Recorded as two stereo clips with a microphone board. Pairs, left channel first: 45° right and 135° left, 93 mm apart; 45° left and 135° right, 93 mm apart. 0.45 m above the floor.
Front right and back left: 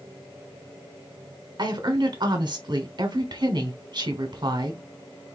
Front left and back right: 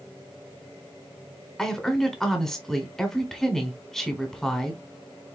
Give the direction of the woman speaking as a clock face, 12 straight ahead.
8 o'clock.